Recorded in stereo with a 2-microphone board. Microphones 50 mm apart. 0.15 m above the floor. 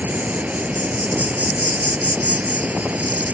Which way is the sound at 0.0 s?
30° right (ahead or behind).